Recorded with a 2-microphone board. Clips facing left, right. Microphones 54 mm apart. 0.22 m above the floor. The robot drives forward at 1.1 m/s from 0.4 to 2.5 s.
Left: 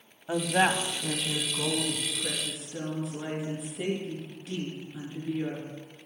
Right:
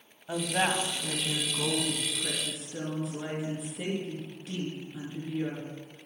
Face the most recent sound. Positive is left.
turn(degrees=5)  # may be behind; listen again after turning